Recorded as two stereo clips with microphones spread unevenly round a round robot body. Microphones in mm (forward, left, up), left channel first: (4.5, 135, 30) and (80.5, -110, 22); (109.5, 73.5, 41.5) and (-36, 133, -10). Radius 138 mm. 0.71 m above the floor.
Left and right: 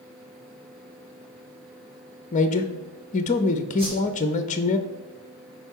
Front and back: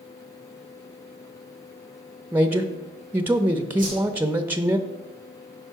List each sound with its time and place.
2.3 s a man speaking: 140° left, 0.6 m
3.8 s a whoosh: 145° right, 3 m